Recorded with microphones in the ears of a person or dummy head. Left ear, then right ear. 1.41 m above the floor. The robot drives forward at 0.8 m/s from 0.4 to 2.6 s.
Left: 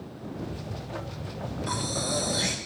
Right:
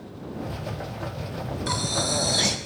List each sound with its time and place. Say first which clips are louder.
1.7 s breathing: right 4 dB; 35° right (ahead or behind), 3 m; by 2.6 s 40° right (ahead or behind), 2.5 m